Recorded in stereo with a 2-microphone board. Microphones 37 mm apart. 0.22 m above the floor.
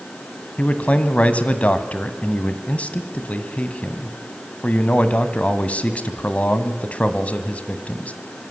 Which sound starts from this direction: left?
A man speaking, at 0.6 s.